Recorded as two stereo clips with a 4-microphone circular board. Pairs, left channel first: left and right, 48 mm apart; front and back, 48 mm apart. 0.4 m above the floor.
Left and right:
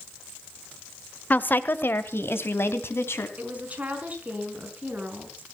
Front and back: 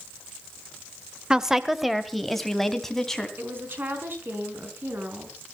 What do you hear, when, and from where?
1.3 s a woman speaking: 110° left, 1.0 m; by 3.3 s 80° left, 3 m
3.4 s a woman speaking: 145° right, 4.5 m